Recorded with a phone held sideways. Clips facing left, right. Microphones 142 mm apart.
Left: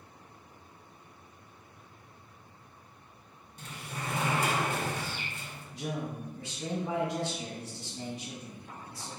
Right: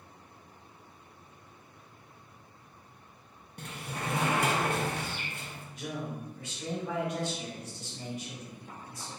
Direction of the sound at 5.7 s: 30° left (ahead or behind).